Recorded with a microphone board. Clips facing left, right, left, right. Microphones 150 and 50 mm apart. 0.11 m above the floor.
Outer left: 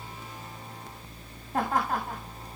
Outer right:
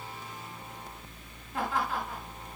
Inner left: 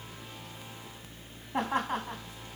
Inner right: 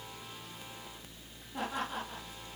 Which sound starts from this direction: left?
Laughter, at 1.5 s.